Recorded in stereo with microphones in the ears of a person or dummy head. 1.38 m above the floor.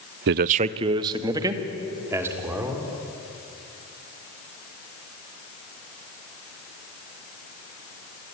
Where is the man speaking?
60° right (ahead or behind), 0.5 m; by 2.9 s 10° right (ahead or behind), 4 m.